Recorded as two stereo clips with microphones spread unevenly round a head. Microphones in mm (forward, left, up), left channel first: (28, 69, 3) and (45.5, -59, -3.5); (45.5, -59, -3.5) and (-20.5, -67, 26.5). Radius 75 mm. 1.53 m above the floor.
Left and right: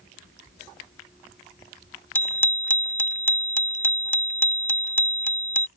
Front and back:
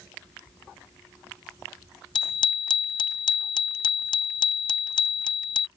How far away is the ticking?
No ticking in this recording.